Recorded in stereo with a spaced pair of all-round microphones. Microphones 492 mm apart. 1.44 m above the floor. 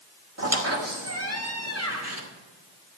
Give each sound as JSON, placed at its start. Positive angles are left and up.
{"t": 0.4, "sound": "a squeak", "side_deg": -30, "distance_m": 1.6}